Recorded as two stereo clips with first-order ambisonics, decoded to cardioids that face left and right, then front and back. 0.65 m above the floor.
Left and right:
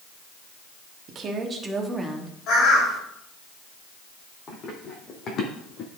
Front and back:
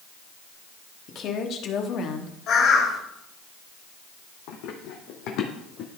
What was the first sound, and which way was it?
A woman speaking, 45° right.